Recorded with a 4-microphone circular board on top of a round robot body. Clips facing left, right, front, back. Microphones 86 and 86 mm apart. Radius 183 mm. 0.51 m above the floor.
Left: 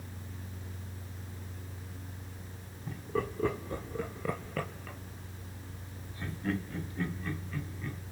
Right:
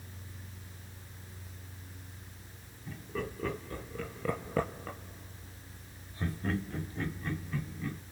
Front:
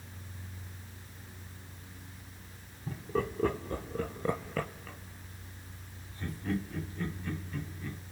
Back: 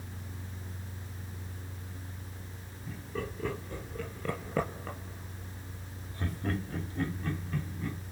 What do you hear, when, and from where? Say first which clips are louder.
2.9 s laughter: left 4 dB, front 5 dB; 30° left, 2 m; by 8.0 s 145° right, 5 m